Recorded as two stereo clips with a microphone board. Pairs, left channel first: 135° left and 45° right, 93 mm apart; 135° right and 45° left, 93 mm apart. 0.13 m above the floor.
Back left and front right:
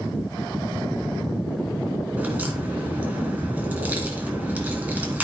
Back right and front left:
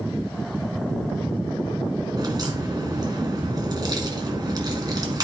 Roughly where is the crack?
Ahead left.